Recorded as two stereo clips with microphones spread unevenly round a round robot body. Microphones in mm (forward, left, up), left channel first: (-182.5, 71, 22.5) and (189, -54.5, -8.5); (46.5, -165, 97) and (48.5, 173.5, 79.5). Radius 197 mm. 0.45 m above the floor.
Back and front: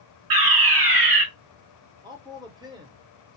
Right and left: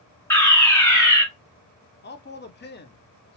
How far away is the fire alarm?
About 3 m.